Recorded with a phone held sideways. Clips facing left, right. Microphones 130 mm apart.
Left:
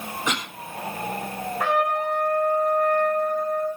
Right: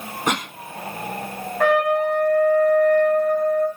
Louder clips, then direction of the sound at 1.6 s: Right 6 dB; 75° right (ahead or behind).